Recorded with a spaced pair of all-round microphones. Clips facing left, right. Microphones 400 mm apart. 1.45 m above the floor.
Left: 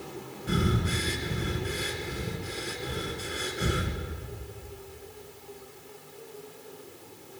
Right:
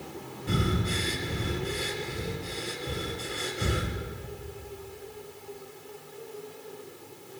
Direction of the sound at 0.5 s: 5° right (ahead or behind).